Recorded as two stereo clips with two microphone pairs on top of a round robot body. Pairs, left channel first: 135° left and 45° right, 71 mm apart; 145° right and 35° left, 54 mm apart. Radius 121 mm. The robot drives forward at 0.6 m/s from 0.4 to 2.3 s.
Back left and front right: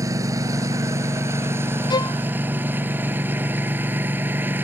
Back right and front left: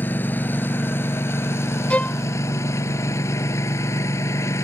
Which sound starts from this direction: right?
A lawn mower, at 0.0 s.